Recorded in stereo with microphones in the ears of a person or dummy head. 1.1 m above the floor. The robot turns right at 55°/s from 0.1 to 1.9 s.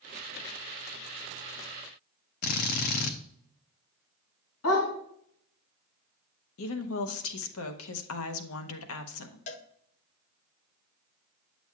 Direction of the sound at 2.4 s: 50° left (ahead or behind).